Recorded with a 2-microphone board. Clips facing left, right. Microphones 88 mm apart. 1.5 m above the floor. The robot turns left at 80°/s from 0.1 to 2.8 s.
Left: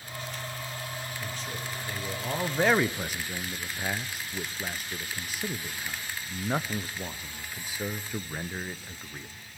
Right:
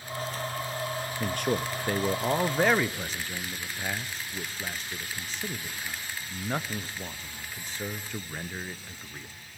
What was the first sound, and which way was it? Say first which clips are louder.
A man speaking: right 9 dB; 60° right (ahead or behind).